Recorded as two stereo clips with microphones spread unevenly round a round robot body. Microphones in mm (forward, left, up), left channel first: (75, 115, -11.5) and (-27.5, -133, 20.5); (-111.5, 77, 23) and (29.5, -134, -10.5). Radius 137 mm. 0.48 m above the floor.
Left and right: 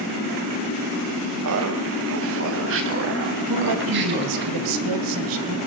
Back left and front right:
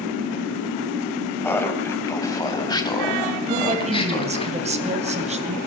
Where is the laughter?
150° right, 3.5 m; by 4.5 s 165° right, 5 m.